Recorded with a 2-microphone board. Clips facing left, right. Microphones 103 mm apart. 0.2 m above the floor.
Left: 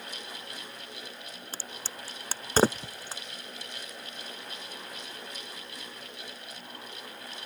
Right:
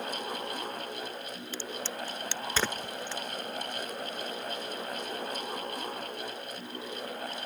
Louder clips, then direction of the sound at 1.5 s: Right 7 dB; 40° left (ahead or behind).